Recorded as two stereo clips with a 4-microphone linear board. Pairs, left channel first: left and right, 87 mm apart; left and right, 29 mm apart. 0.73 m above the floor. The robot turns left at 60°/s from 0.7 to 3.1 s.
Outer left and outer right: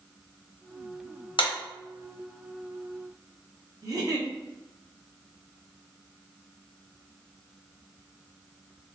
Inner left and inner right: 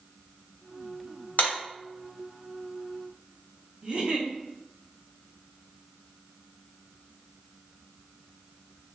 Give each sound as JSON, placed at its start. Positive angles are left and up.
{"t": 1.4, "sound": "a clap", "side_deg": 70, "distance_m": 0.8}
{"t": 3.8, "sound": "a giggle", "side_deg": -40, "distance_m": 0.6}